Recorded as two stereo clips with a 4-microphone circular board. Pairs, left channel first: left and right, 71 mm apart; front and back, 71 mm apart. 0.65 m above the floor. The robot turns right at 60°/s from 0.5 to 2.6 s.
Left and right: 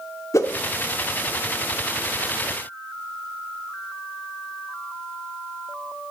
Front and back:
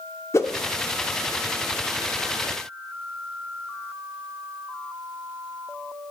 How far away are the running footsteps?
No running footsteps in this recording.